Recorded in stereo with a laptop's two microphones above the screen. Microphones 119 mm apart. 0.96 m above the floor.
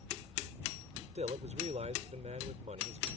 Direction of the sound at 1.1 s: 70° right (ahead or behind).